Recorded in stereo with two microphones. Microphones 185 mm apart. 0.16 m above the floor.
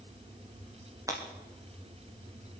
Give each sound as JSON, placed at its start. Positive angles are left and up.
{"t": 1.1, "sound": "breaking glass", "side_deg": -20, "distance_m": 6.5}